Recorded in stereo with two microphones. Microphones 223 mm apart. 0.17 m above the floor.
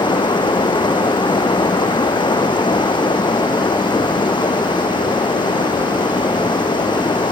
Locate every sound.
0.0 s running water: 20° left (ahead or behind)